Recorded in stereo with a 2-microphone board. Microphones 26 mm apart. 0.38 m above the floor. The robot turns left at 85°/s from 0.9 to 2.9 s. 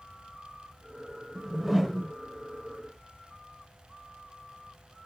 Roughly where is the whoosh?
Behind right.